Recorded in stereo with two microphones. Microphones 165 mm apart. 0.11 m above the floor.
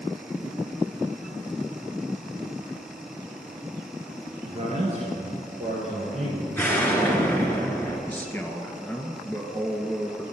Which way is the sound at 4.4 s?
35° right (ahead or behind).